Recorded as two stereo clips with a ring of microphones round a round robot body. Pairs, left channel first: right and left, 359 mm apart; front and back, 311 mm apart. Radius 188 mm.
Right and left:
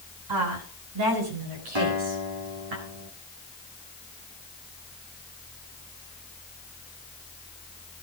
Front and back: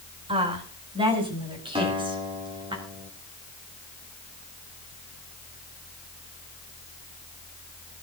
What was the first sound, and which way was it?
A woman speaking, 110° left.